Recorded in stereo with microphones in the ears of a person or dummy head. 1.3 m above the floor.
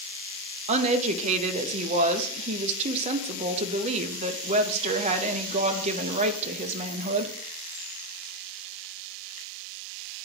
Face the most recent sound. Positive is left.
turn(degrees=-35)  # may be behind; listen again after turning